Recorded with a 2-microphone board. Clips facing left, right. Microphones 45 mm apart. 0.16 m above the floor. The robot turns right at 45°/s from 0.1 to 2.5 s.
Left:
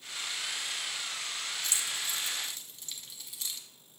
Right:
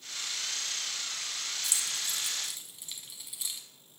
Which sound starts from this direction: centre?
Keys jangling, at 1.6 s.